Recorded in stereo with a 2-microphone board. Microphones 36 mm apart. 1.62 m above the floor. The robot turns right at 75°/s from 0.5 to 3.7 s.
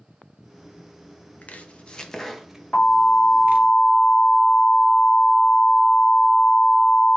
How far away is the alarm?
About 3.5 m.